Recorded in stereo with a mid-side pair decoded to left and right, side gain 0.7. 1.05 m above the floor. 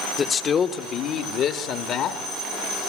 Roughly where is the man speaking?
Ahead left.